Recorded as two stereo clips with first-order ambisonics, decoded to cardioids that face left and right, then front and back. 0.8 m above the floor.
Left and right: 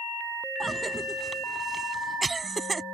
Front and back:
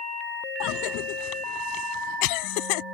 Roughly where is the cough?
Ahead.